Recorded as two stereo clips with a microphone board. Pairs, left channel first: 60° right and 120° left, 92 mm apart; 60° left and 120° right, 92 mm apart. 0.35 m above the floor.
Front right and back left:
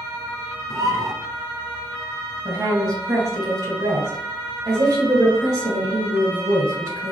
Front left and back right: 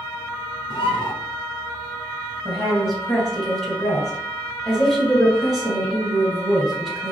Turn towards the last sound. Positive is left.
turn(degrees=145)